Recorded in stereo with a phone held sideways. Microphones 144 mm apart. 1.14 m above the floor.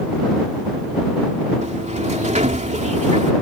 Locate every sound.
1.6 s a sliding door: 55° right (ahead or behind)